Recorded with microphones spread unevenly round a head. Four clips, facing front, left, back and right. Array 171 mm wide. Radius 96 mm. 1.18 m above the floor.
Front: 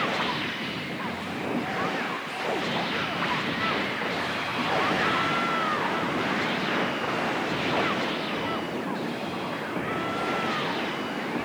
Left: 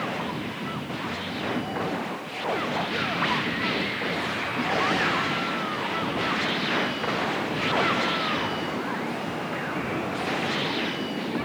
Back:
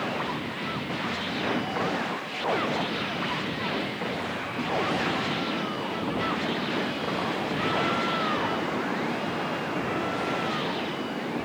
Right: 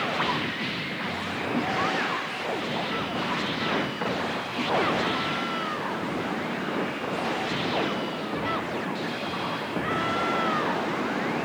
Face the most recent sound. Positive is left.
No sound to turn to.